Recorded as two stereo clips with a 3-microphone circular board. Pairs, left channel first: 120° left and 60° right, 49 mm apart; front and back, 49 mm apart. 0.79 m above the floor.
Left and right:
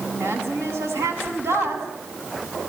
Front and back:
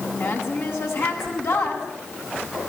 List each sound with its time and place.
0.2 s a woman speaking: 35° right, 7 m